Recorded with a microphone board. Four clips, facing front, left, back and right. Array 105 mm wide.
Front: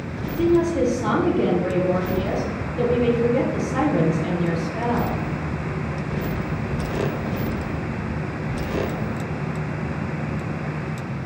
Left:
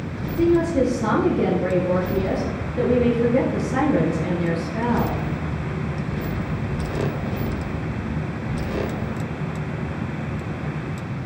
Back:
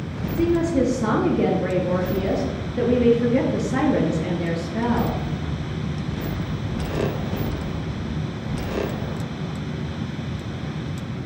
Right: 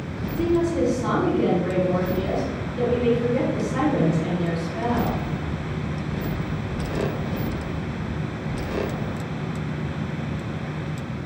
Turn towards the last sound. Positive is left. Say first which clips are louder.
# left 3 dB, front 1 dB
turn(degrees=150)